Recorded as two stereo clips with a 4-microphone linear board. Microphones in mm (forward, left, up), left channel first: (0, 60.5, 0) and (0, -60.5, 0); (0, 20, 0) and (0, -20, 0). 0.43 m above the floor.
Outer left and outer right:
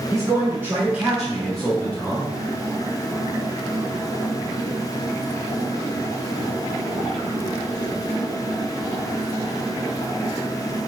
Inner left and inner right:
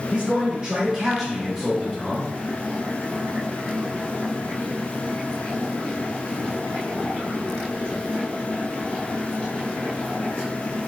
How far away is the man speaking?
About 1.1 m.